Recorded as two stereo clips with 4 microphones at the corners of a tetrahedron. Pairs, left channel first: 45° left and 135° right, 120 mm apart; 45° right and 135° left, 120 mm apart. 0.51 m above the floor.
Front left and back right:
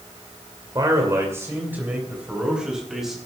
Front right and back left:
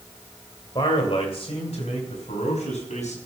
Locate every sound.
0.8 s a man speaking: 85° right, 2.5 m; by 3.2 s 45° right, 4.5 m